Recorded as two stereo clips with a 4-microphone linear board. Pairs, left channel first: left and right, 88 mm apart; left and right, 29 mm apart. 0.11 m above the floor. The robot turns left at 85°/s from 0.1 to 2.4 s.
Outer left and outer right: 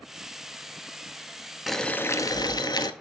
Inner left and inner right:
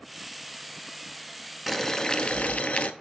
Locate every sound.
1.7 s boiling: straight behind, 0.6 m; by 2.9 s 120° left, 0.6 m